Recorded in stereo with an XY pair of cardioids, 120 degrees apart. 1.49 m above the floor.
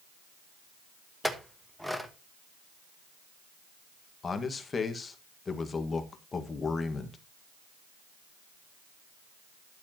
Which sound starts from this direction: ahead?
A clink, at 1.2 s.